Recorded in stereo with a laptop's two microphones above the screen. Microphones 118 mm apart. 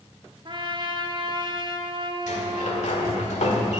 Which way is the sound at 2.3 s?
75° left (ahead or behind).